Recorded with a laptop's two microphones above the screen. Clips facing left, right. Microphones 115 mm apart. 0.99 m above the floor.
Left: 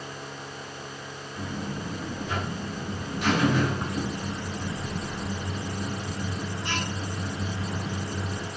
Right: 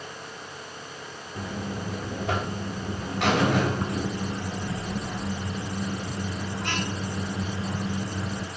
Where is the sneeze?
I don't hear a sneeze.